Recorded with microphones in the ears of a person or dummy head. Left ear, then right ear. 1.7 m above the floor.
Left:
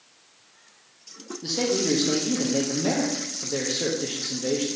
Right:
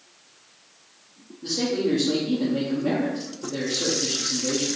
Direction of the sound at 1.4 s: 45° left (ahead or behind).